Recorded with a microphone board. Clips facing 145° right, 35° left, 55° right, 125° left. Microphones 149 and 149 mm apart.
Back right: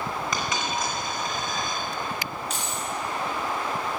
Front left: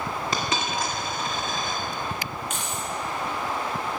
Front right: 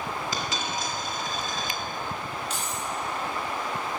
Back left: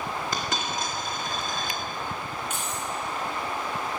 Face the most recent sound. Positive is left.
turn(degrees=160)